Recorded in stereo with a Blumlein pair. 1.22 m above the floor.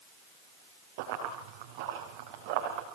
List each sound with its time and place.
1.0 s running footsteps: 50° right, 5 m; by 2.9 s 35° right, 5 m